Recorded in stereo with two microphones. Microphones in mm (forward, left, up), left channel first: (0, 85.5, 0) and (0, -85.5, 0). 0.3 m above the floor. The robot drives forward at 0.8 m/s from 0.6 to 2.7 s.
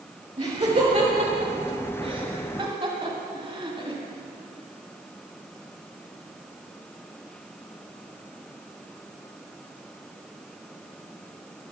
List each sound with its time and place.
0.4 s laughter: 35° right (ahead or behind), 1.3 m; by 4.0 s 30° right (ahead or behind), 1.6 m